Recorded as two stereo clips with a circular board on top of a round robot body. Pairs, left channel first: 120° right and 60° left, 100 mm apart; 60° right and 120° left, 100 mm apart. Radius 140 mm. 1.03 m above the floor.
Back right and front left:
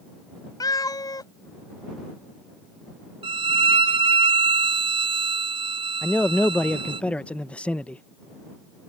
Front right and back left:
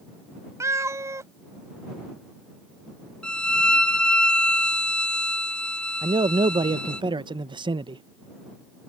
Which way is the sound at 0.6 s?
175° right.